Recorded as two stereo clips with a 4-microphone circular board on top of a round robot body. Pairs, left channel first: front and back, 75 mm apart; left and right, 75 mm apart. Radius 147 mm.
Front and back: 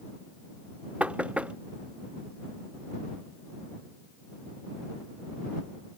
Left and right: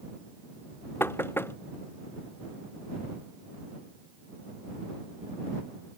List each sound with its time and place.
1.0 s knocking: 120° left